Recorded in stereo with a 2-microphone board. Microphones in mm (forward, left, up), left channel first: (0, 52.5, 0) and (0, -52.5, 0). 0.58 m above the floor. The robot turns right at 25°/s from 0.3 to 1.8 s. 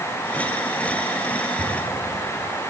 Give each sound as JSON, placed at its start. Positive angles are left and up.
{"t": 1.6, "sound": "an explosion", "side_deg": -80, "distance_m": 8.0}